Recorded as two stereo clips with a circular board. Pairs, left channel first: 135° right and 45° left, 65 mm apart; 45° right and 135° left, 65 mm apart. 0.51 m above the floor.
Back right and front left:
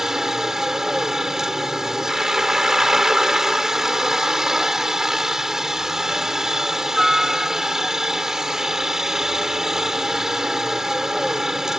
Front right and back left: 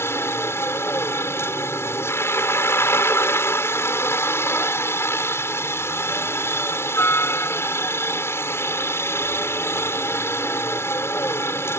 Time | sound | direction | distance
0.0 | a helicopter | 35° right | ?